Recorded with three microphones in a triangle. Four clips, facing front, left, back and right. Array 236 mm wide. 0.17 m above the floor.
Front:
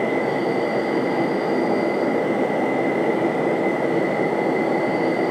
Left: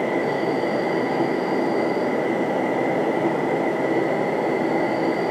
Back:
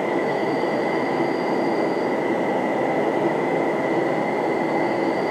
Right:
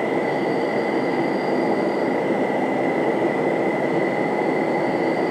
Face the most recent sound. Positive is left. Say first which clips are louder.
# right 1 dB, front 1 dB
turn(degrees=-40)